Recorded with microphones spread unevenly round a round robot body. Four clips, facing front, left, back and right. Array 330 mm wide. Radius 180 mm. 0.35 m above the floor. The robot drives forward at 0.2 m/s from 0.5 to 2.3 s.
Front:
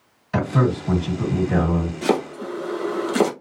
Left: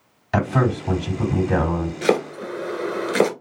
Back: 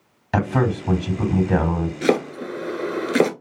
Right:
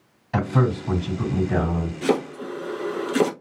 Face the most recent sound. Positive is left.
turn(degrees=140)